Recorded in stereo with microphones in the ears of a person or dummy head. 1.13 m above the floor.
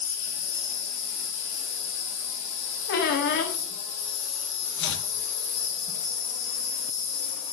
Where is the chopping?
60° left (ahead or behind), 0.9 m.